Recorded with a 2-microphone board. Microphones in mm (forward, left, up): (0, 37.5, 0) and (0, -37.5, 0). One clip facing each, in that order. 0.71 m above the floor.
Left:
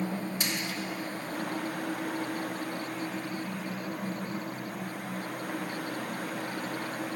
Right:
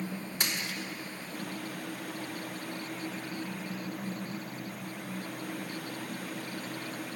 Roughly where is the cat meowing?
I don't hear a cat meowing.